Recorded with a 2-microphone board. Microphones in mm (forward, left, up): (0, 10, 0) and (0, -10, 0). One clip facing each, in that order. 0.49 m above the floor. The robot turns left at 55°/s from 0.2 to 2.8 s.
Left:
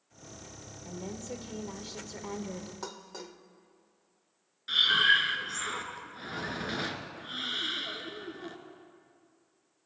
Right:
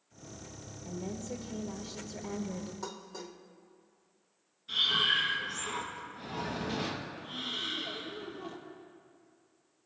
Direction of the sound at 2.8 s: 25° left (ahead or behind).